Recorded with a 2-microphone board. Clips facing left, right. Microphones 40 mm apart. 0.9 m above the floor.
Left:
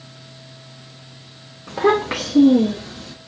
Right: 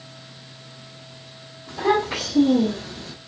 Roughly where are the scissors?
No scissors in this recording.